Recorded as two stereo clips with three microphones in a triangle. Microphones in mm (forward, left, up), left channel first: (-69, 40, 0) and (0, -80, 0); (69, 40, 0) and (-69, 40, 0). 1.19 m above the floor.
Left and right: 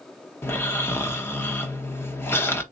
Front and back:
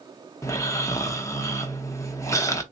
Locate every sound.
0.4 s snoring: 55° left, 0.8 m